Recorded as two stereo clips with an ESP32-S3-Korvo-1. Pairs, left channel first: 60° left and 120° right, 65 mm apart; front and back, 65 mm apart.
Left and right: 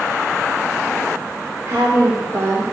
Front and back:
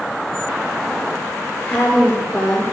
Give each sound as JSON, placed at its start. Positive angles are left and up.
{"t": 1.7, "sound": "a woman speaking", "azimuth_deg": -75, "distance_m": 3.5}